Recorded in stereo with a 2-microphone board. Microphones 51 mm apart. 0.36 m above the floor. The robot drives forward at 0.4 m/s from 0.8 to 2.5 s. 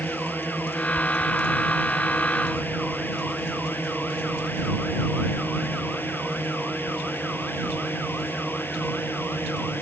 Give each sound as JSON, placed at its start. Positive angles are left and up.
{"t": 0.0, "sound": "a drone", "side_deg": 35}